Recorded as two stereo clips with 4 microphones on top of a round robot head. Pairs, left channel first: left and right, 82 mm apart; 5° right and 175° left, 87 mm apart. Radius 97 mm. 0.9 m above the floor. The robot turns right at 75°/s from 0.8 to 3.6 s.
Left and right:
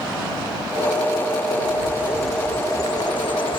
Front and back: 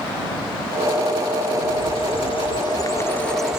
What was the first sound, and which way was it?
A bird, 45° right.